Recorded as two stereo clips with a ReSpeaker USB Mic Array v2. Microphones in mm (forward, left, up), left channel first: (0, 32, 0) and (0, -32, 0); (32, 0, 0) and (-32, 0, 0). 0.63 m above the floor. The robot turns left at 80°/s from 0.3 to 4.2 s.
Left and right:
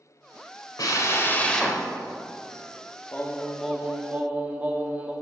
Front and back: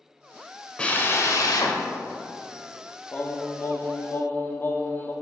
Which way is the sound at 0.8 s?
75° left.